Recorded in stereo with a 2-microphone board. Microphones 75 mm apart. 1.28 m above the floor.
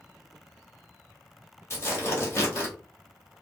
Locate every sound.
1.7 s tearing paper: 40° left (ahead or behind), 1.5 m